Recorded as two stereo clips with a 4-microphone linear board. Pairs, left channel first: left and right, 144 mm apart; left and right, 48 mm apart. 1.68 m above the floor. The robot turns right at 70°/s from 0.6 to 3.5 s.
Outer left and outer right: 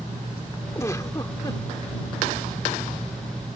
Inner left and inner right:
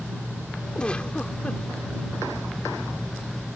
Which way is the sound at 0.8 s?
20° left (ahead or behind).